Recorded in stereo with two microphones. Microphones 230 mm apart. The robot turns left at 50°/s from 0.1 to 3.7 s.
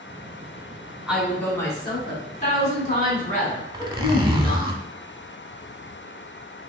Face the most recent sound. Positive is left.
turn(degrees=-20)  # may be behind; listen again after turning